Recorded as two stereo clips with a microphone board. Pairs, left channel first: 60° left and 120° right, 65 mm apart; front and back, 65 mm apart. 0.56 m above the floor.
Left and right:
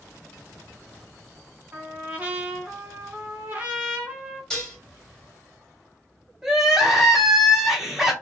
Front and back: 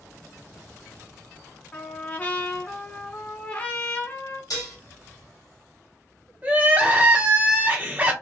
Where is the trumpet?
60° right, 1.3 m.